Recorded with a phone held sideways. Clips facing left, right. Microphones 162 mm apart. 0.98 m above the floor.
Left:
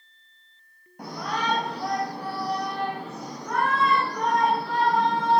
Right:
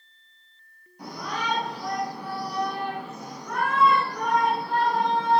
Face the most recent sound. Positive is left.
turn(degrees=85)